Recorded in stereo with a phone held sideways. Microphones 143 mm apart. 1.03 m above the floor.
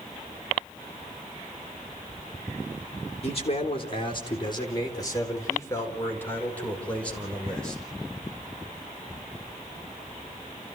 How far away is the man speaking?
About 3.5 m.